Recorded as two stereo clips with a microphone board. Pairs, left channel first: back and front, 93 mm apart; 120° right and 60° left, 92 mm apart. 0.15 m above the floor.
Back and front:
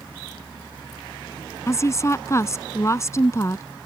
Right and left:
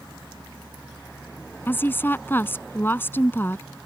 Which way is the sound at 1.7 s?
165° right.